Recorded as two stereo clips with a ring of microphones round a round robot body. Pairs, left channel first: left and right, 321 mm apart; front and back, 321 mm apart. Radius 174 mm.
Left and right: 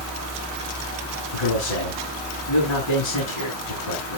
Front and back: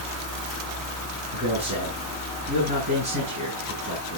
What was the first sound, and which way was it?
A man speaking, 115° left.